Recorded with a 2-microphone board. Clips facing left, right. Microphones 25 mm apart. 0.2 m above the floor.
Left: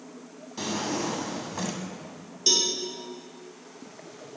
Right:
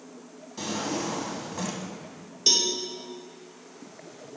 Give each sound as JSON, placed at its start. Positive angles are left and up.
{"t": 0.6, "sound": "a drawer", "side_deg": 10, "distance_m": 0.7}
{"t": 2.5, "sound": "a cowbell", "side_deg": -15, "distance_m": 1.1}